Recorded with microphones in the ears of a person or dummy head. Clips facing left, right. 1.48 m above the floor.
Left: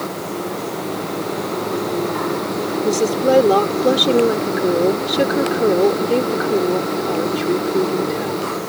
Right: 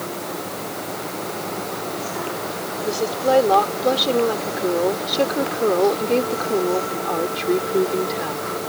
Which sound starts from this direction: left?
A woman speaking, at 2.8 s.